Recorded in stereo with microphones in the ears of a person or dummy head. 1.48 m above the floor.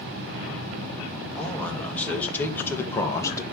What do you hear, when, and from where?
1.4 s a man speaking: centre (ahead or behind), 2.5 m; by 3.4 s 20° left (ahead or behind), 1.4 m